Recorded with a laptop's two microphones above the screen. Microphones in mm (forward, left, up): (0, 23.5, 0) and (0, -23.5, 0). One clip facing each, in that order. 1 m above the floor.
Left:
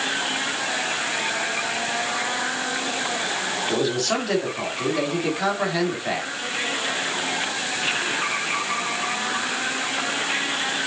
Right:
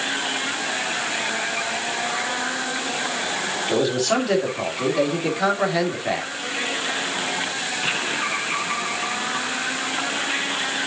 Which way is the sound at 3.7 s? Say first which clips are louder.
Right 4 dB; 5° right (ahead or behind).